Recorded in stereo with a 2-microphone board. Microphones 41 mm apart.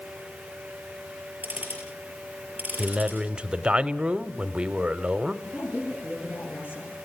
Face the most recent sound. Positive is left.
turn(degrees=55)  # may be behind; listen again after turning